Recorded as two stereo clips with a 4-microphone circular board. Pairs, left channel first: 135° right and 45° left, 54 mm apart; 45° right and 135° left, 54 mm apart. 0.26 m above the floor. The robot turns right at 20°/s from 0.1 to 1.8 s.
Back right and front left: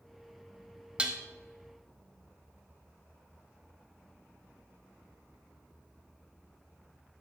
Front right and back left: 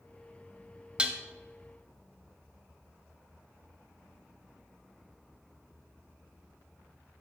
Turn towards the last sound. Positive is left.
turn(degrees=100)